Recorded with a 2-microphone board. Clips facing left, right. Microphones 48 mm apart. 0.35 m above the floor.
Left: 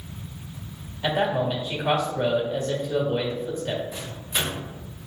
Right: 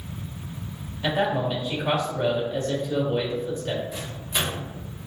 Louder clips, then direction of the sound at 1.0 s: Even; 10° left (ahead or behind).